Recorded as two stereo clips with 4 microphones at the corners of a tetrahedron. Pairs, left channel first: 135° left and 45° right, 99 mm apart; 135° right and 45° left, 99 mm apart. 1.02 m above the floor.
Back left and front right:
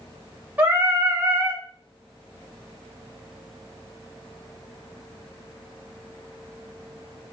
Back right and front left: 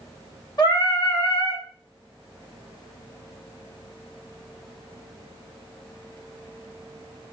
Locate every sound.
0.6 s singing: 115° right, 0.7 m